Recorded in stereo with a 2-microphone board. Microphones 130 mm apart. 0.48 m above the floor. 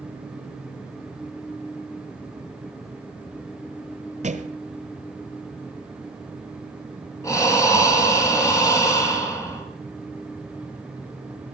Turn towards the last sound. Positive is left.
turn(degrees=25)  # may be behind; listen again after turning